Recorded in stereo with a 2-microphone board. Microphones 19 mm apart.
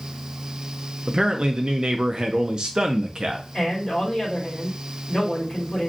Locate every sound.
1.1 s a man speaking: 50° right (ahead or behind), 0.5 m
3.5 s a man speaking: 20° left (ahead or behind), 1.9 m